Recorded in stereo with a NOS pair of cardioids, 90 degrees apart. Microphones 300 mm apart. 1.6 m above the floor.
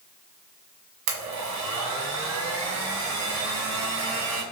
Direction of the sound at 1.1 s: 70° right.